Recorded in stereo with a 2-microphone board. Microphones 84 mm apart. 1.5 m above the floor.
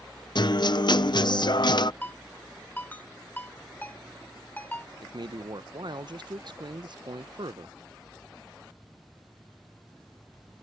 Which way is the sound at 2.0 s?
20° left (ahead or behind).